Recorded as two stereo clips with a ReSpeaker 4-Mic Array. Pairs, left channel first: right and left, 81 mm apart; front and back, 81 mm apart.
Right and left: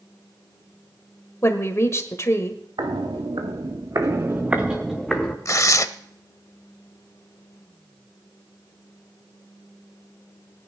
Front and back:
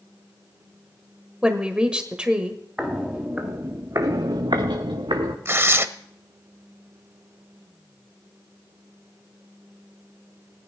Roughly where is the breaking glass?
No breaking glass in this recording.